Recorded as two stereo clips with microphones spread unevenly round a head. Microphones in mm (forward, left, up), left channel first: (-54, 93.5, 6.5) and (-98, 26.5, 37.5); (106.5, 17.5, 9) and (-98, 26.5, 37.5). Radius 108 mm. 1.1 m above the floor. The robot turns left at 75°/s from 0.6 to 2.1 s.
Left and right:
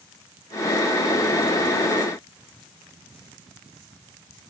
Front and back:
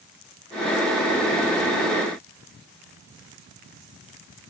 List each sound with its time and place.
Only background noise.